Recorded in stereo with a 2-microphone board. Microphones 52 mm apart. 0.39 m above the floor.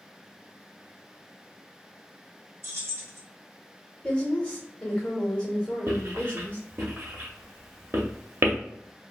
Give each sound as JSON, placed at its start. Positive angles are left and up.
{"t": 2.6, "sound": "keys jangling", "side_deg": -50, "distance_m": 1.0}
{"t": 4.0, "sound": "a woman speaking", "side_deg": 20, "distance_m": 1.2}
{"t": 5.9, "sound": "writing", "side_deg": -60, "distance_m": 0.7}